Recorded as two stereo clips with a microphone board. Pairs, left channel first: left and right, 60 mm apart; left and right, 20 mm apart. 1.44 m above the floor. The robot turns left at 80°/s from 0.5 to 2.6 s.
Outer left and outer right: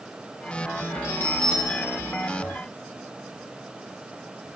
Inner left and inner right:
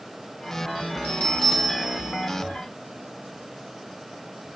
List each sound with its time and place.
1.0 s a bell: 55° left, 2 m; by 2.3 s 45° right, 2 m